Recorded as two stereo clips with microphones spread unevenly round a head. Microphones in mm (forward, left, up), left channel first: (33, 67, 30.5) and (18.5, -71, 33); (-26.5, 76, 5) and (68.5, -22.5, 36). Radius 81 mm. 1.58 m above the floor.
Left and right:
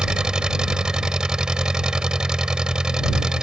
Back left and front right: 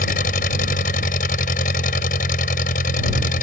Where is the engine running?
Straight behind.